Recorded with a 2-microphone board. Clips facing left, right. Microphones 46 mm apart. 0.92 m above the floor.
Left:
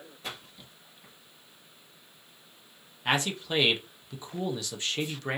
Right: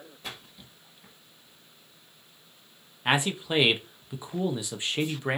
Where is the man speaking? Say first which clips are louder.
Right 2 dB; 20° right (ahead or behind), 0.8 m.